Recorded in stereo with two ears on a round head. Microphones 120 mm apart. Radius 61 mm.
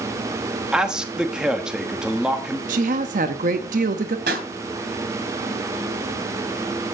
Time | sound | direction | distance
0.7 | a man speaking | 5° right (ahead or behind) | 1.2 m
2.7 | a woman speaking | 65° right (ahead or behind) | 1.1 m
4.3 | a pop | 85° right | 3 m